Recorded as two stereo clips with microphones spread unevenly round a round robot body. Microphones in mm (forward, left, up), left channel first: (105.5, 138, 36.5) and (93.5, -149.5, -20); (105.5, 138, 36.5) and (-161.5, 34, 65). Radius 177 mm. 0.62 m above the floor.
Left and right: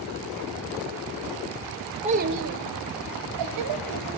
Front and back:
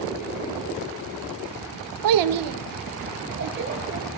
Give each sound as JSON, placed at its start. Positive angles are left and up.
{"t": 2.0, "sound": "a child speaking", "azimuth_deg": -165, "distance_m": 1.1}